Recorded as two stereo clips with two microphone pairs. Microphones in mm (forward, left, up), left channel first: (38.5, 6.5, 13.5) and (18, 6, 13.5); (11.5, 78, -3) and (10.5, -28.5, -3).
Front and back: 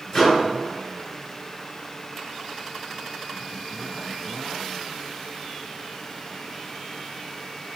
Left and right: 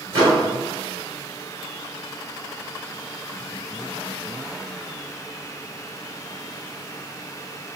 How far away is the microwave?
About 1.7 m.